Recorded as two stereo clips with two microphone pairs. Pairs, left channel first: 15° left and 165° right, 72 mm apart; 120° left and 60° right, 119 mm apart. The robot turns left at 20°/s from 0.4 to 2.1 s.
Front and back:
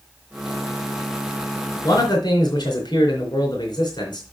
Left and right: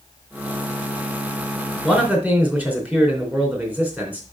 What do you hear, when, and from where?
1.8 s a man speaking: 25° left, 3 m; by 4.2 s 20° left, 3 m